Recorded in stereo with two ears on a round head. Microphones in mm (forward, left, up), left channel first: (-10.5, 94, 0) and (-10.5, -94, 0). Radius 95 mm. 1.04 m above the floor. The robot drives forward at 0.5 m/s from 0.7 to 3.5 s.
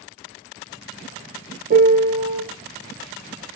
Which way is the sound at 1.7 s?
40° right (ahead or behind).